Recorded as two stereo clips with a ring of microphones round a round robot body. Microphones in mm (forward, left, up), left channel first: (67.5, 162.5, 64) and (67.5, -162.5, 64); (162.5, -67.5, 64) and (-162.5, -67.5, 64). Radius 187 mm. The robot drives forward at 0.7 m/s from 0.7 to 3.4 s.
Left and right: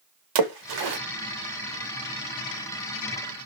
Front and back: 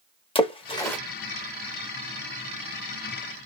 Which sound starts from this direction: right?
A splash, at 0.3 s.